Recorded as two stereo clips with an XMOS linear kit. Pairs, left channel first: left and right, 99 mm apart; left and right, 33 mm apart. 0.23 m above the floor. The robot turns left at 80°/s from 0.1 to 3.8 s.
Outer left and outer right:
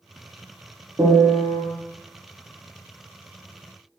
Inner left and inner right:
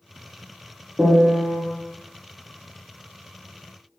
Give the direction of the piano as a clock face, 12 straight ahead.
4 o'clock.